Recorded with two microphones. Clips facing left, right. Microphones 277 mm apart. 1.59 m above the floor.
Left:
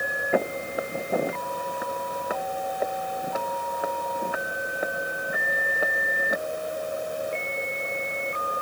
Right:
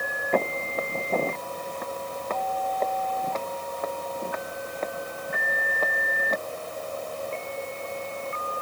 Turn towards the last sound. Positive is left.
turn(degrees=10)  # may be behind; listen again after turning